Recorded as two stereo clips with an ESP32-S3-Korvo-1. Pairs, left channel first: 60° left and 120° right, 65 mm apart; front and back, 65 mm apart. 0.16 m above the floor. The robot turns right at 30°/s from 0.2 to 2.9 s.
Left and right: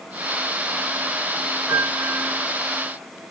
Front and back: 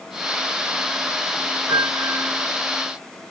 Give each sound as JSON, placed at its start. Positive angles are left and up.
{"t": 1.7, "sound": "a piano", "azimuth_deg": -140, "distance_m": 1.4}